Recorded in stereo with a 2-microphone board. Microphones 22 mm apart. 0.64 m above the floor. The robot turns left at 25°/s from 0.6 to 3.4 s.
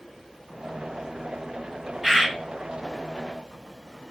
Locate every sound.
2.0 s a bird: 35° right (ahead or behind), 1.3 m